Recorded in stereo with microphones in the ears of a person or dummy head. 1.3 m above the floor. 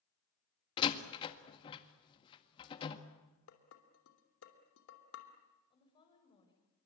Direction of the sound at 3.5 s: 75° left (ahead or behind).